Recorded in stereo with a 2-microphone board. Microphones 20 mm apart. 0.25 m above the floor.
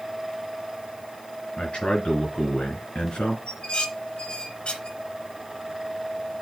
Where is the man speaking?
70° left (ahead or behind), 4 m.